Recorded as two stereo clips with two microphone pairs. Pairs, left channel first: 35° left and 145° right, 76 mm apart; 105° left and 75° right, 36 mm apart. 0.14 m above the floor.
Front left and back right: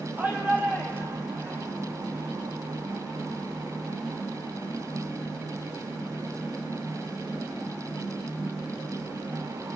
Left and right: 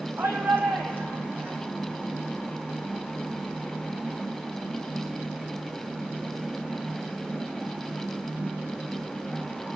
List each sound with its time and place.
0.2 s a shout: 75° right, 6.5 m; by 1.6 s 80° right, 7 m